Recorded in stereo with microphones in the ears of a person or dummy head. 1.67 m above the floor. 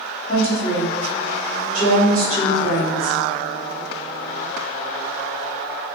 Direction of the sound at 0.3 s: 30° left (ahead or behind).